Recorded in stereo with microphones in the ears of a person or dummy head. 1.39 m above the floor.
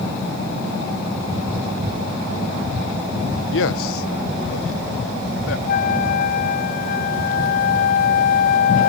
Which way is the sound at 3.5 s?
65° left (ahead or behind).